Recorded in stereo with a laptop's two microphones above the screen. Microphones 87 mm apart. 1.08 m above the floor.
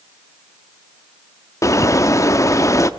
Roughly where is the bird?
Left.